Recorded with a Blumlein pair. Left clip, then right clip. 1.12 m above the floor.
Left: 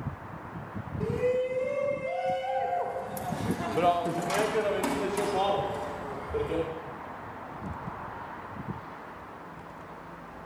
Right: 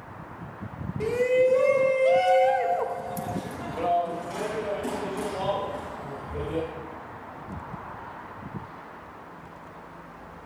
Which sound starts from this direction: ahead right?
A shout, at 1.0 s.